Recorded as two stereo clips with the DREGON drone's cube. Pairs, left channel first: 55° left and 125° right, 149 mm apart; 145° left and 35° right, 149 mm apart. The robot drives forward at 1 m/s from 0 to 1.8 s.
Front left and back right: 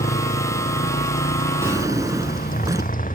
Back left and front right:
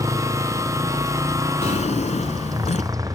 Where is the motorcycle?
30° left; by 3.2 s 35° left.